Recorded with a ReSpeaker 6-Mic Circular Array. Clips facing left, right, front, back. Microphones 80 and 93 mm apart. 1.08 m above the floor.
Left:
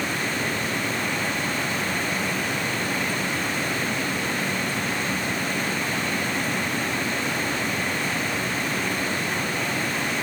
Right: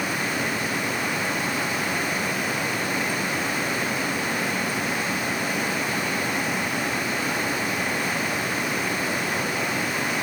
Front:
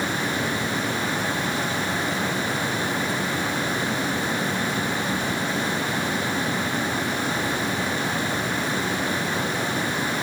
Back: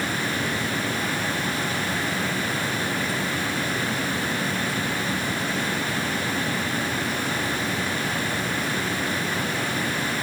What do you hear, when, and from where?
Only background noise.